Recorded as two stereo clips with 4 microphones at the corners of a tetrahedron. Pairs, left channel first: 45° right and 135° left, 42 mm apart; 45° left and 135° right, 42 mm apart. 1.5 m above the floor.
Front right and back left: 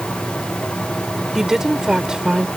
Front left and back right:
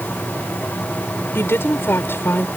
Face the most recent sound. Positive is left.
turn(degrees=60)